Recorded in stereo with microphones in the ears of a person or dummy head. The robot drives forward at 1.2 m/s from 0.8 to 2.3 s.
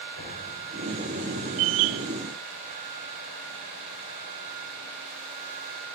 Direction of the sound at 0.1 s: 75° right (ahead or behind).